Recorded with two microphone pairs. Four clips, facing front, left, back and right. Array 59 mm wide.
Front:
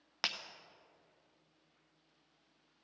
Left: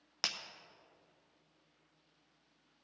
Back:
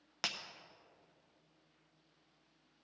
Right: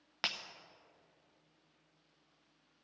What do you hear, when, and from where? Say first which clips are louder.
0.2 s breaking glass: right 3 dB, front 2 dB; 25° right, 0.7 m